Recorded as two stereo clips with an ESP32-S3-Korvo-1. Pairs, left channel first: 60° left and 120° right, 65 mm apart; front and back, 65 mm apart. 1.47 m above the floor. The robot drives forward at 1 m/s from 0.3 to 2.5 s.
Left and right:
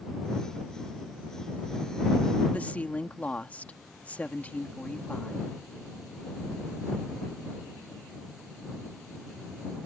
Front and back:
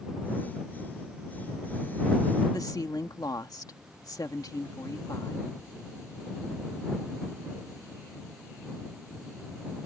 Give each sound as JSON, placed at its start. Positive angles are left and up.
{"t": 2.5, "sound": "a woman speaking", "azimuth_deg": -5}